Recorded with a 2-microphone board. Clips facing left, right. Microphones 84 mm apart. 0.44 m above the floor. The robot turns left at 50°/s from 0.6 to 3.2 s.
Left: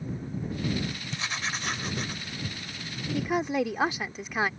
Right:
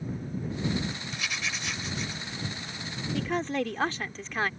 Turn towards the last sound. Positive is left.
turn(degrees=10)  # may be behind; listen again after turning